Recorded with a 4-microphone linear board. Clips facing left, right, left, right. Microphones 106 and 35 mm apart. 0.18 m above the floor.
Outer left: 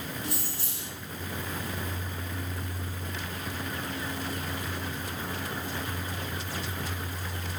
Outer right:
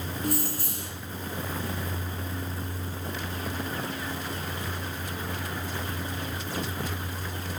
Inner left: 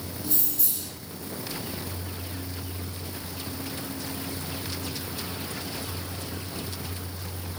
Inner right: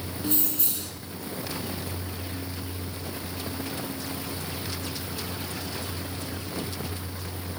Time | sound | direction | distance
0.2 | keys jangling | 50° right (ahead or behind) | 1.5 m